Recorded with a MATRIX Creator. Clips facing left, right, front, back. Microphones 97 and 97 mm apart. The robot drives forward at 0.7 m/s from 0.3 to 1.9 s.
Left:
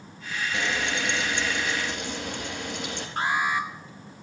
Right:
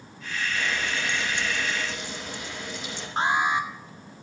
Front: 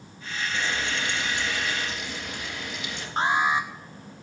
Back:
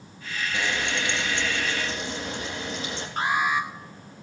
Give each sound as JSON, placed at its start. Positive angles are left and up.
{"t": 0.5, "sound": "frying", "azimuth_deg": 105, "distance_m": 3.0}
{"t": 3.2, "sound": "an alarm", "azimuth_deg": -40, "distance_m": 1.8}